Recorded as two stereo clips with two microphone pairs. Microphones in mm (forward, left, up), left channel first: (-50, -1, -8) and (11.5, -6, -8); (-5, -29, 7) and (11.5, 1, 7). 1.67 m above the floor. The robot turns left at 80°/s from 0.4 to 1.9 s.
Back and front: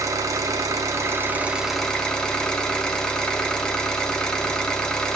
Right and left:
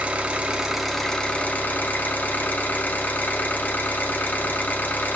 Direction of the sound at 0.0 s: 10° left.